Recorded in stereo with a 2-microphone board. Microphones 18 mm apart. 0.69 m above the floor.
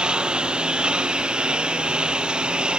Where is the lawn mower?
70° right (ahead or behind); by 2.8 s 75° right (ahead or behind).